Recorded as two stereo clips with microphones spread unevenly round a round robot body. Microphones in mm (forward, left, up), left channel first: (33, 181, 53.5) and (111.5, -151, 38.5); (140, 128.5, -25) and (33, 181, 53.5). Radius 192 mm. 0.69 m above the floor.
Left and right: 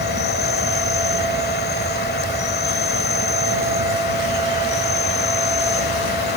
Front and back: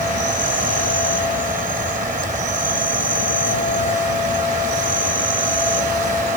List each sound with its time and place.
0.0 s an insect: 170° left